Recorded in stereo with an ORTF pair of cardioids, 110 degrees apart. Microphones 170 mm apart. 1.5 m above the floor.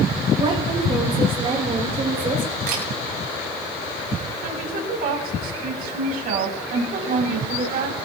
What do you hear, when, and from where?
0.4 s a woman speaking: 35° right, 6.5 m
2.7 s a camera shutter: 65° right, 6.5 m
4.4 s a woman speaking: 65° right, 4.5 m